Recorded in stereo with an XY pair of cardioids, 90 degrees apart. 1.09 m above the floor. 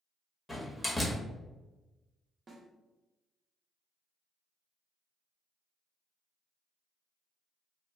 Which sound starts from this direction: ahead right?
A snare drum, at 2.5 s.